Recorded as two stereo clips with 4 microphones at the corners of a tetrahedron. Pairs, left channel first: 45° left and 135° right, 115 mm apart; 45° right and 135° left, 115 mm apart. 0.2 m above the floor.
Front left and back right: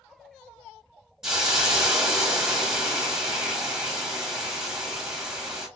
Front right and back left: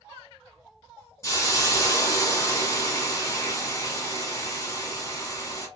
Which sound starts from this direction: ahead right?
A hiss, at 1.2 s.